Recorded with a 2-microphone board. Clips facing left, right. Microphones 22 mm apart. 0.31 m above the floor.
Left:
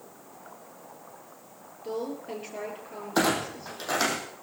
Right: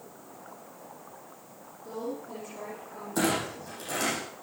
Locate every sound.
1.8 s a woman speaking: 55° left (ahead or behind), 7 m
3.1 s a clunk: 45° left (ahead or behind), 5 m